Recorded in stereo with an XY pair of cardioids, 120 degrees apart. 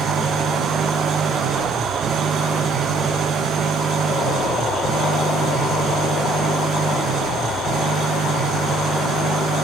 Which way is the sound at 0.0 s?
65° right.